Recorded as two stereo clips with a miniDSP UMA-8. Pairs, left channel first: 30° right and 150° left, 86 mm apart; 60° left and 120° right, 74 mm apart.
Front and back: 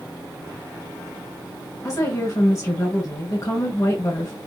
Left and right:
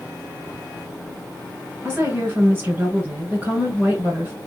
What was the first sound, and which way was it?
A woman speaking, 70° right.